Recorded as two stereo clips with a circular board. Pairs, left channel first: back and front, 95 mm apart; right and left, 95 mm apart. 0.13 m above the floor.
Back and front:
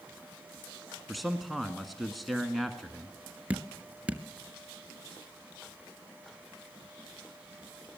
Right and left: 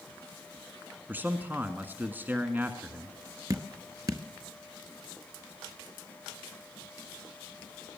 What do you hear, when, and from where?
1.1 s a man speaking: 90° left, 1.6 m
3.5 s dripping: 70° left, 1.2 m